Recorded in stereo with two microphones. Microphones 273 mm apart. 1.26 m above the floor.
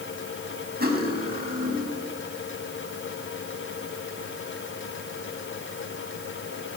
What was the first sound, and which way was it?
Cutlery clinking, 35° right (ahead or behind).